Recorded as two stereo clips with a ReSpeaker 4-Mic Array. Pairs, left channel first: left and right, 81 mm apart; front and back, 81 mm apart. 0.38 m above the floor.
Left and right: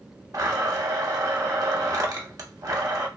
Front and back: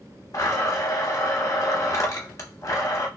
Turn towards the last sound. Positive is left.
turn(degrees=-50)